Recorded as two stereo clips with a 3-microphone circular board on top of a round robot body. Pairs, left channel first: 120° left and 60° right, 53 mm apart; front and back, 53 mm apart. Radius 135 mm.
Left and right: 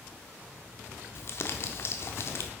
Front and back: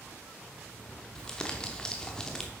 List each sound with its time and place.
1.1 s crumpling: 75° left, 0.7 m